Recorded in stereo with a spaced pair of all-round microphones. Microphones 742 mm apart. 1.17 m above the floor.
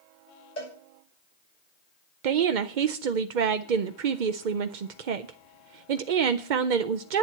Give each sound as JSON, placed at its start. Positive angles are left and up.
{"t": 0.6, "sound": "a cowbell", "side_deg": 80, "distance_m": 6.5}
{"t": 2.2, "sound": "a woman speaking", "side_deg": -80, "distance_m": 0.8}